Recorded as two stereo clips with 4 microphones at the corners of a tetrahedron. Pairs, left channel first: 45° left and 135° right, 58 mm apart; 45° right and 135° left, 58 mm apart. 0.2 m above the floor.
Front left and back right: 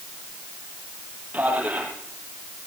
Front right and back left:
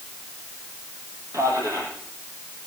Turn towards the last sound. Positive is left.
turn(degrees=160)